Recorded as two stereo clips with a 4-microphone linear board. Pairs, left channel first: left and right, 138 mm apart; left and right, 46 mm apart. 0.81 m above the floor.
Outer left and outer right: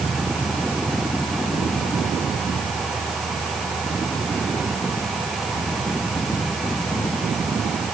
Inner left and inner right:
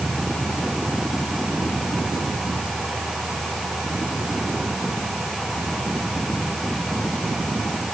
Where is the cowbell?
I don't hear a cowbell.